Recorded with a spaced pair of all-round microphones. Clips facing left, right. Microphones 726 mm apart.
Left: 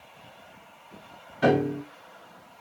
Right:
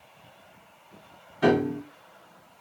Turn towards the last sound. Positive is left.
turn(degrees=5)  # may be behind; listen again after turning